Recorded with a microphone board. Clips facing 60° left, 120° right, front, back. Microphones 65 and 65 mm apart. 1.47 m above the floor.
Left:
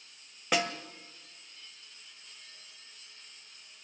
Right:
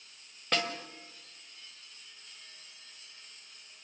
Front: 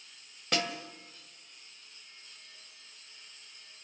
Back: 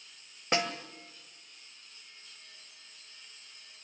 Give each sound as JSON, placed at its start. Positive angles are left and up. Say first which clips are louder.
{"t": 0.5, "sound": "a snare drum", "louder": "left 2 dB, back 2 dB", "azimuth_deg": 135, "distance_m": 1.5}